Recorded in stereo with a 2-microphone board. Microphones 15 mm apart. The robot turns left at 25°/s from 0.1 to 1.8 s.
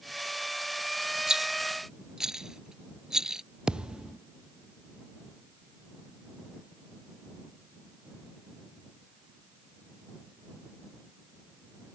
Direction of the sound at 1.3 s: 50° right (ahead or behind).